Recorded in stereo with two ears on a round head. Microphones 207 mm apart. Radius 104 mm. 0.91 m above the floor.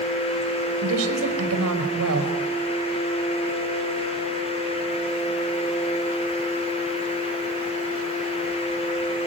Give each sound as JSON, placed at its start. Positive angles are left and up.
{"t": 0.8, "sound": "a woman speaking", "side_deg": -65, "distance_m": 5.0}